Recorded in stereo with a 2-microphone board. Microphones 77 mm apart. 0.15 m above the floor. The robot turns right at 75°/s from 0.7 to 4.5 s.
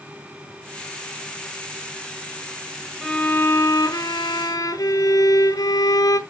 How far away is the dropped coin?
I don't hear a dropped coin.